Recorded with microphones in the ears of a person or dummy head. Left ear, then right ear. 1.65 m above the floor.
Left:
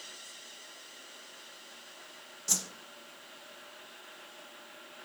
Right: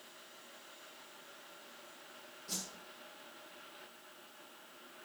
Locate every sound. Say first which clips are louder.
2.5 s a whoosh: left 11 dB; 55° left (ahead or behind), 0.9 m